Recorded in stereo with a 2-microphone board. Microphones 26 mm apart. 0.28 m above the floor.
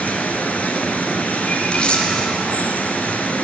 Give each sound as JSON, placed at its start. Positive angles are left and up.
{"t": 0.0, "sound": "running water", "side_deg": 80, "distance_m": 1.5}
{"t": 1.7, "sound": "a camera shutter", "side_deg": 40, "distance_m": 1.9}